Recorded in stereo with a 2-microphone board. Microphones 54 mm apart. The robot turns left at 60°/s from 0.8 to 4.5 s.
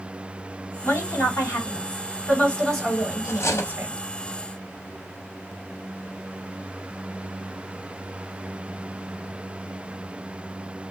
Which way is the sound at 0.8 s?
120° left.